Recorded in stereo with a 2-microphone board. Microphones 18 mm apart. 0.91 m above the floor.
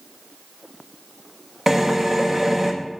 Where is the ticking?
I don't hear ticking.